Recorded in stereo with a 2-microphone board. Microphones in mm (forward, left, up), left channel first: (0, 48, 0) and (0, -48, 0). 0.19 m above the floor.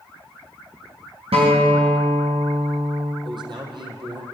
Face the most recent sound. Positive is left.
turn(degrees=-50)  # may be behind; listen again after turning